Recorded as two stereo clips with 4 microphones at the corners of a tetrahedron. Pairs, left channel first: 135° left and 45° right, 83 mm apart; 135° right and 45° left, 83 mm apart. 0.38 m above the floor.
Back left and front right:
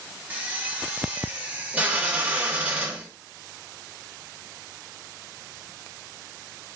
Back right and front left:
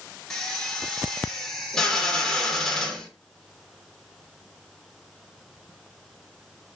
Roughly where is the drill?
Ahead right.